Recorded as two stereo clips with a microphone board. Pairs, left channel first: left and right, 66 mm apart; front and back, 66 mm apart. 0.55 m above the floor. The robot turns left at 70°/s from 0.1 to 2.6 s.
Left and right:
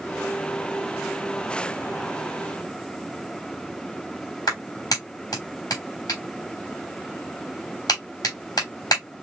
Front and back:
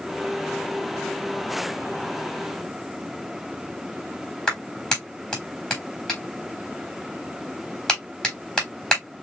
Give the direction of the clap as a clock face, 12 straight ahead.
10 o'clock.